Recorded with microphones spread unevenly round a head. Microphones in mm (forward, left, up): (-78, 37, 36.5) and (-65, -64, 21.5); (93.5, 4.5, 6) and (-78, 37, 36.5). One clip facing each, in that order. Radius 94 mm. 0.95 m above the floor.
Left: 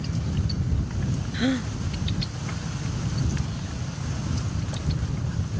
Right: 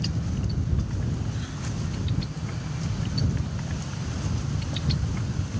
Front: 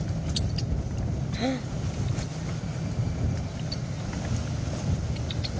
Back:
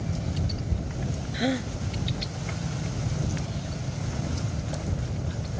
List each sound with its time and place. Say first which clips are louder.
1.3 s a gasp: left 11 dB, back 2 dB; 85° left